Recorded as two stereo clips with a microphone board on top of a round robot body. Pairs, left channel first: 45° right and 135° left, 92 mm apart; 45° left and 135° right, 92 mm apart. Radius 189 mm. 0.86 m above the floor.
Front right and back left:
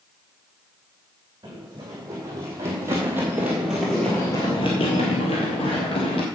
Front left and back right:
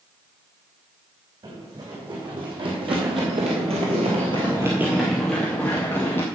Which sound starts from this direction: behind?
Running footsteps, at 1.4 s.